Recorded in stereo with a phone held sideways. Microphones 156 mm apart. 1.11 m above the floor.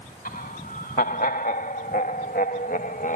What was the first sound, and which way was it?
Laughter, 65° left (ahead or behind).